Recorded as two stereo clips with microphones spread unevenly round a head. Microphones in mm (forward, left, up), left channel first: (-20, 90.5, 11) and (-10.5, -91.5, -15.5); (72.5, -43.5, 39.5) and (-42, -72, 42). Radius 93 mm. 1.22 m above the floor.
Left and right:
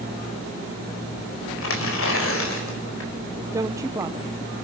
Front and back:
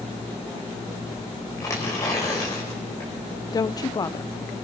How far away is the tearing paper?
About 4 m.